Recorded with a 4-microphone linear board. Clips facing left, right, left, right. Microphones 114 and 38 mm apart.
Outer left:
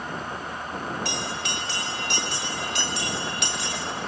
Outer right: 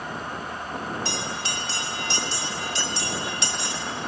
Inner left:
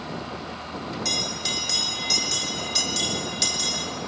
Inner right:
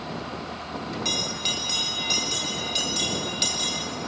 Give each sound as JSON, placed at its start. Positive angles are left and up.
{"t": 1.1, "sound": "a bell", "side_deg": -30, "distance_m": 3.0}